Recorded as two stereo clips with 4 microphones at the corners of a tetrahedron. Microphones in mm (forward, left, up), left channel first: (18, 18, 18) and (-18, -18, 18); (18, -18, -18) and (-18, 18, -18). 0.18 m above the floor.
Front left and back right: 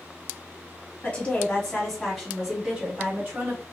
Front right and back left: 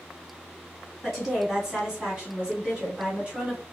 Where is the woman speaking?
60° left, 1.4 m; by 3.6 s 170° right, 1.7 m.